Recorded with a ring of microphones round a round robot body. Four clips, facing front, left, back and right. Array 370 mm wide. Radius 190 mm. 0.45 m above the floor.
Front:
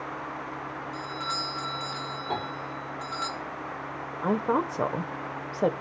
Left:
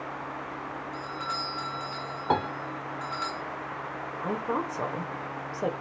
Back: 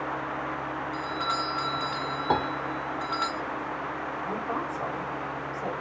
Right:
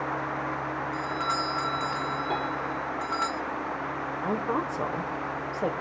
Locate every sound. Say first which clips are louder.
0.9 s a doorbell: right 5 dB, back 4 dB; 120° right, 1.7 m
2.3 s a piano: left 7 dB, back 7 dB; 140° left, 1.8 m
4.2 s a woman speaking: right 1 dB, front 8 dB; 5° right, 1.5 m